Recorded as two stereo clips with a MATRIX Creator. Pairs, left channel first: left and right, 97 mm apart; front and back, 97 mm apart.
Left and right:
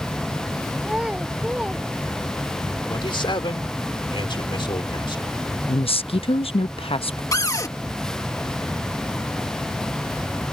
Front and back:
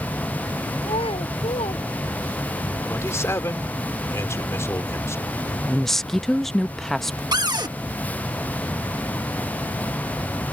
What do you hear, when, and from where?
0.8 s a child speaking: 10° right
2.9 s a man speaking: 60° left
5.7 s a woman speaking: 85° left
7.3 s a cupboard door: 140° left